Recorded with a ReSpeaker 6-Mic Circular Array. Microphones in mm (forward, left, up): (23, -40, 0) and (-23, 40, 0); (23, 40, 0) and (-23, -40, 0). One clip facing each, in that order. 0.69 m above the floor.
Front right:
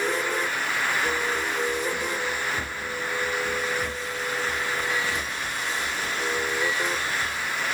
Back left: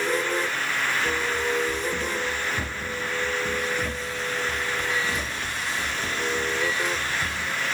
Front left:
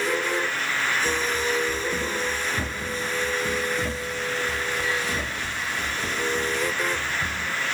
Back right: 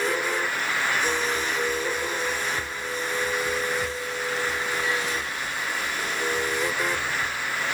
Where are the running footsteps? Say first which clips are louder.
Back left 1 dB, front left 1 dB; 35° left; by 7.5 s 55° left.